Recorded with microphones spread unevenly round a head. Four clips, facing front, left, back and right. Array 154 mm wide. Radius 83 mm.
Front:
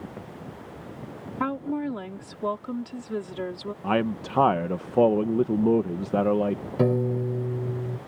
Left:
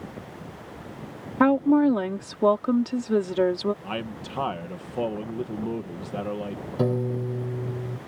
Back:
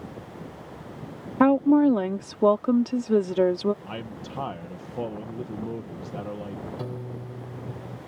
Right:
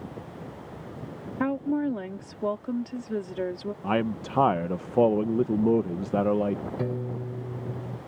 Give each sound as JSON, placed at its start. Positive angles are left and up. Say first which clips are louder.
{"t": 1.4, "sound": "a woman speaking", "louder": "left 8 dB, back 11 dB", "azimuth_deg": 150}
{"t": 3.8, "sound": "a man speaking", "louder": "right 6 dB, front 11 dB", "azimuth_deg": -25}
{"t": 6.8, "sound": "a piano", "louder": "left 6 dB, front 12 dB", "azimuth_deg": 25}